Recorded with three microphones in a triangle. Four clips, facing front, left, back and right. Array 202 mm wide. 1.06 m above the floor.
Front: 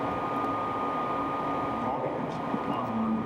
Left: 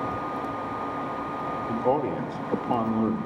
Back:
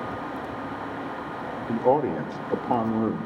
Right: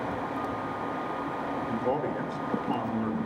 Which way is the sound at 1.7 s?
165° left.